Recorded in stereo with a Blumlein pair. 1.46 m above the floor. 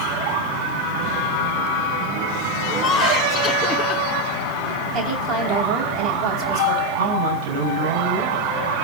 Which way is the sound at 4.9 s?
30° right.